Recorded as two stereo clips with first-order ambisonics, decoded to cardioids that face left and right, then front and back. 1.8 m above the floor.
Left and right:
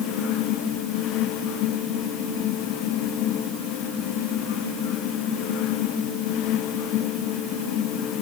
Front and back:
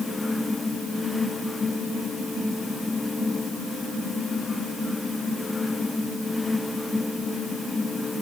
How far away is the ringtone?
No ringtone in this recording.